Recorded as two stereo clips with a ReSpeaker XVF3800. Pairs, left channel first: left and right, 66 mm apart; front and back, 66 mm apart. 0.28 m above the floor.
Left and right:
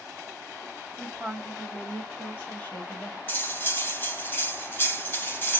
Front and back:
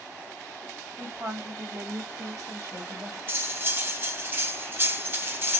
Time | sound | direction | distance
1.0 | a woman speaking | 175° right | 1.8 m
3.3 | cutlery clinking | 135° left | 1.0 m